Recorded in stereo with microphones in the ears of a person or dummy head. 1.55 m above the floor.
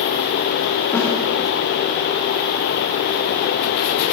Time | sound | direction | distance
0.9 | a snare drum | 20° left (ahead or behind) | 2.5 m